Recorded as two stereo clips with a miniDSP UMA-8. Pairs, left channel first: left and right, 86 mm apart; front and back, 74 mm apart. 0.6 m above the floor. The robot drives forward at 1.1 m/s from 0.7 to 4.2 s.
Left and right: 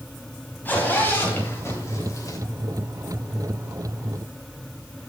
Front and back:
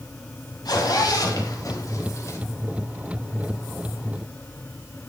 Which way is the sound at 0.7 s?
25° left.